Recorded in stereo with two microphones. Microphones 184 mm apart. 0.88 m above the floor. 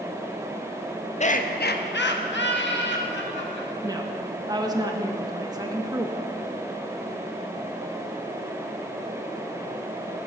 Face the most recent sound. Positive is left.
turn(degrees=-20)  # may be behind; listen again after turning